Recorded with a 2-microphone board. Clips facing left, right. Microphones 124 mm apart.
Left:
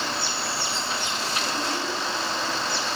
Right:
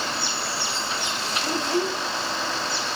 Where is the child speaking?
80° right, 6.5 m.